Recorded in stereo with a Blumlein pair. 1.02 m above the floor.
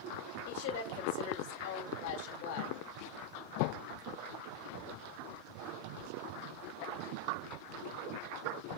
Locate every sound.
0.5 s a woman speaking: 45° left, 2.5 m